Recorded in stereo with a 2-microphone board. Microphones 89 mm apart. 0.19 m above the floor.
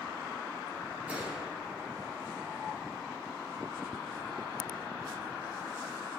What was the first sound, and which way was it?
A gunshot, 15° right (ahead or behind).